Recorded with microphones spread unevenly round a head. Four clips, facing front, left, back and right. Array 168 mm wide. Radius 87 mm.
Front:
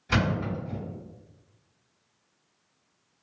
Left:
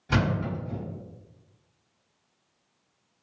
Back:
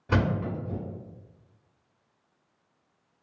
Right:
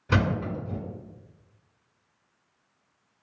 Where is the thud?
170° right, 1.3 m.